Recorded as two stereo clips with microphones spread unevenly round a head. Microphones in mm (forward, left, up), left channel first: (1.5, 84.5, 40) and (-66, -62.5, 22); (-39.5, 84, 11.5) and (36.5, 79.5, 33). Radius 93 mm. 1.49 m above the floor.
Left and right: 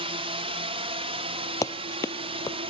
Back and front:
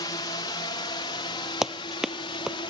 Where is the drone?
165° right; by 2.7 s 170° right.